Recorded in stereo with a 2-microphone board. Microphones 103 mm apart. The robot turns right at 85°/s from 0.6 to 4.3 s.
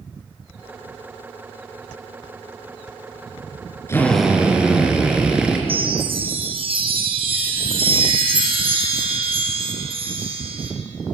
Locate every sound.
3.9 s a drill: 155° left, 3.5 m; by 5.6 s 170° right, 3.5 m
5.7 s a chime: 60° right (ahead or behind), 3.5 m